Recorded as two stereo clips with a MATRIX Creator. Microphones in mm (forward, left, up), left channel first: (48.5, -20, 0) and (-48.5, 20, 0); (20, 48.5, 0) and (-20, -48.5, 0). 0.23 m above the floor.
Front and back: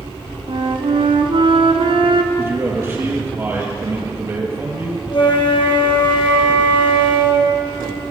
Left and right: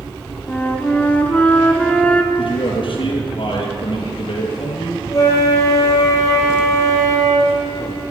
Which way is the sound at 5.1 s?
10° left.